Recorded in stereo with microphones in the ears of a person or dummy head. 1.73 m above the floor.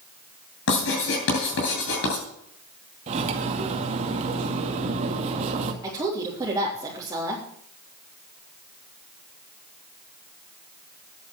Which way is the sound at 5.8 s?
20° right (ahead or behind).